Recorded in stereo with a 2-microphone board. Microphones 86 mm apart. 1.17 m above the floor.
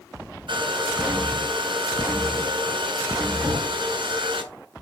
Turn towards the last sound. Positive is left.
turn(degrees=-40)  # may be behind; listen again after turning